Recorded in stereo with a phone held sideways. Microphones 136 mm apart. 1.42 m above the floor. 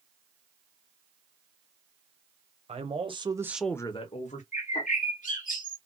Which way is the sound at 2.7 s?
50° right (ahead or behind).